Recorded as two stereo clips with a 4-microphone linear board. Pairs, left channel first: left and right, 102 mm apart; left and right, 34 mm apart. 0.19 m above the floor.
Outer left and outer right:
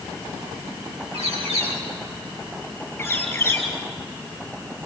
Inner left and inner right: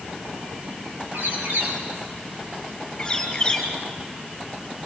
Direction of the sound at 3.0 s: 20° left (ahead or behind).